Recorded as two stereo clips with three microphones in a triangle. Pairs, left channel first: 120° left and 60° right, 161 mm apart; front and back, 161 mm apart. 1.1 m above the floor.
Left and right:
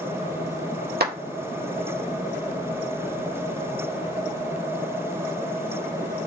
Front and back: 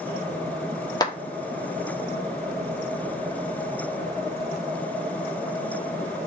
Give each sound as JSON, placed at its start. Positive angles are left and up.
{"t": 1.0, "sound": "a clap", "azimuth_deg": -65, "distance_m": 1.4}